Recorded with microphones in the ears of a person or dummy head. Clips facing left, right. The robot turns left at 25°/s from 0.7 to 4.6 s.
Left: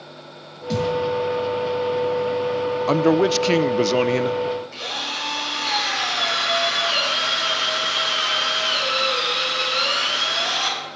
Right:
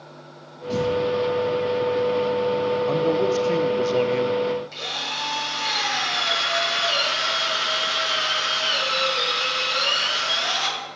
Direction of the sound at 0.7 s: 40° left (ahead or behind).